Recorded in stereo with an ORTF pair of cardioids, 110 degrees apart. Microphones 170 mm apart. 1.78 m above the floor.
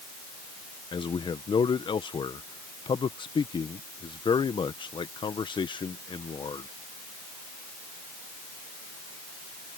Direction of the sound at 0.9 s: 30° left.